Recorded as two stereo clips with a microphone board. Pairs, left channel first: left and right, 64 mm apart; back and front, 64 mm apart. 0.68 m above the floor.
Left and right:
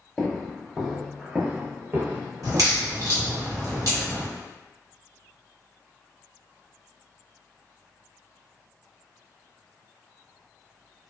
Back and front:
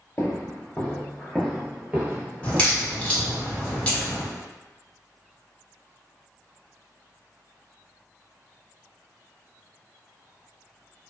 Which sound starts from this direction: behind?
Footsteps, at 0.2 s.